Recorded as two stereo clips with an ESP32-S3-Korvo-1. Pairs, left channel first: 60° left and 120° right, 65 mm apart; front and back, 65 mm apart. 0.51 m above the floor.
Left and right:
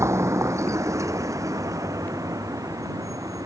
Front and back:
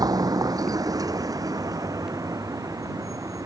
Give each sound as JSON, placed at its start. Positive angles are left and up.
{"t": 0.0, "sound": "a vehicle", "azimuth_deg": -165}